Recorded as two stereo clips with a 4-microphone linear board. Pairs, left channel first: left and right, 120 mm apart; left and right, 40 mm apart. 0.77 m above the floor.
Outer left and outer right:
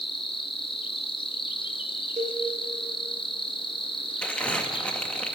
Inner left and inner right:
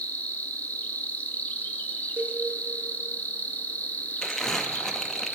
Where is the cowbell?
70° right (ahead or behind), 3 m.